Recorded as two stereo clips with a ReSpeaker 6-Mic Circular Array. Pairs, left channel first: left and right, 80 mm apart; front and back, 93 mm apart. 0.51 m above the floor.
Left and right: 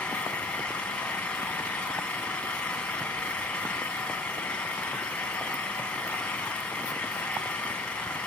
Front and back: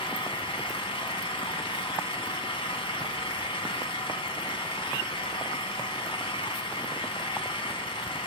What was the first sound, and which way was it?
An engine running, 15° left.